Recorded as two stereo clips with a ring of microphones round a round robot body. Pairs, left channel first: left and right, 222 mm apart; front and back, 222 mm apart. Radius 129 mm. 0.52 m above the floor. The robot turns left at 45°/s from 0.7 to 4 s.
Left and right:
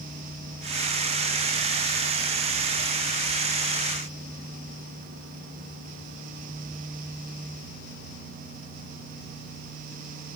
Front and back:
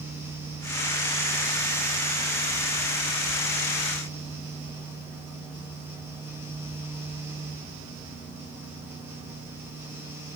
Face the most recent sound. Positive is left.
No sound to turn to.